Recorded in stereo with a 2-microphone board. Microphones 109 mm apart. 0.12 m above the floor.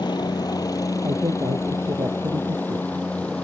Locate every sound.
0.0 s a helicopter: 40° left (ahead or behind); by 3.4 s 10° left (ahead or behind)
1.0 s a man speaking: 40° right (ahead or behind)